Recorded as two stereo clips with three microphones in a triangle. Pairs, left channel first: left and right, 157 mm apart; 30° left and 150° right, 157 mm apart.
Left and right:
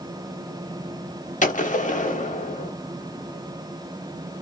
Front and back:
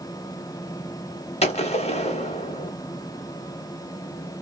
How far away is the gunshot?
About 0.7 m.